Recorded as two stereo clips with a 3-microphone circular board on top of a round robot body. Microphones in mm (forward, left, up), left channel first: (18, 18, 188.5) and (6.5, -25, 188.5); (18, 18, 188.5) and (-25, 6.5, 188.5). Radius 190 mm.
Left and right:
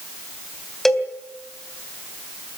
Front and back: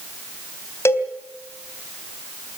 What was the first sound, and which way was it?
A cowbell, 10° right.